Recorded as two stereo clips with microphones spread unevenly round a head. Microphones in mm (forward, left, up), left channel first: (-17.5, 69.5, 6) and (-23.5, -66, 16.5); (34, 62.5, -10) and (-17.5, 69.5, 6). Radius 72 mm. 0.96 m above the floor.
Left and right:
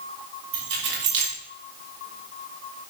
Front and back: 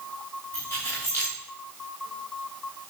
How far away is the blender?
No blender in this recording.